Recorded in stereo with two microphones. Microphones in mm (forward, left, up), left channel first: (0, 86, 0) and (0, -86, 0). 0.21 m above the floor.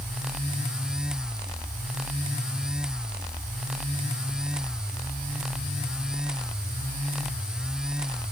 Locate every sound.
Only background noise.